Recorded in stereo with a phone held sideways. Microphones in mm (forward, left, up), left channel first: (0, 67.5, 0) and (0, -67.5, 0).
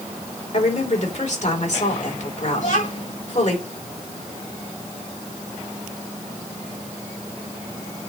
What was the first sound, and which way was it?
A woman speaking, 60° left (ahead or behind).